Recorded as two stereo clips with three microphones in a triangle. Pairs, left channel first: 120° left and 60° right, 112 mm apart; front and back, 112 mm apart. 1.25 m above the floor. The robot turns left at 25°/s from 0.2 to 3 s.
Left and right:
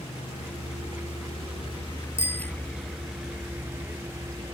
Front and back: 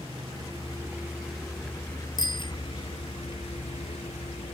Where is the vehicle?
140° left; by 4.5 s straight ahead.